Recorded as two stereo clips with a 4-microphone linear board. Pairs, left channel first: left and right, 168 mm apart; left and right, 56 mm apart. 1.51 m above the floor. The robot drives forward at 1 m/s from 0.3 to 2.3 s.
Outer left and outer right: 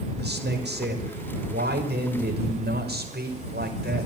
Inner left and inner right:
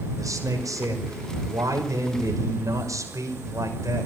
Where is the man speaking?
80° right, 5 m; by 4.1 s 75° right (ahead or behind), 5.5 m.